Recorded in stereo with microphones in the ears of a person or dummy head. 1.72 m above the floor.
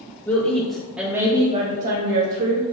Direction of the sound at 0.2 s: 20° left (ahead or behind).